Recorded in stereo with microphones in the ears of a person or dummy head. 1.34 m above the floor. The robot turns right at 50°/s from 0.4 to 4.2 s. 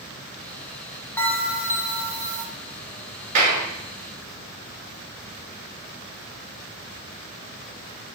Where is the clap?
50° right (ahead or behind), 2 m; by 3.6 s 35° right (ahead or behind), 2 m.